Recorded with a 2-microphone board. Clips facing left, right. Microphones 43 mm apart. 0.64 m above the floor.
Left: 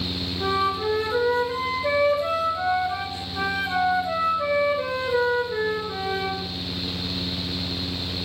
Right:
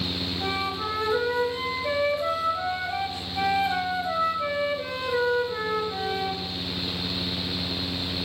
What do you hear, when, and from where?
0.4 s a flute: 65° left (ahead or behind), 3 m